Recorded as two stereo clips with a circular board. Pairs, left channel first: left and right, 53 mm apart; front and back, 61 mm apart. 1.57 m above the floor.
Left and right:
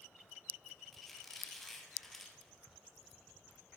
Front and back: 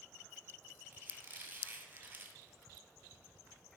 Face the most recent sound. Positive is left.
turn(degrees=165)